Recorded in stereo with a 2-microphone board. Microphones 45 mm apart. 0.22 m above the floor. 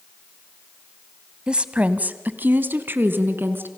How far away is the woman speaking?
About 1.0 m.